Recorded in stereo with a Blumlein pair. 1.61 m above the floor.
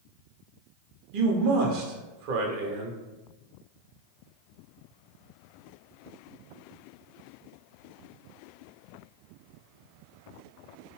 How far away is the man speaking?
About 0.8 m.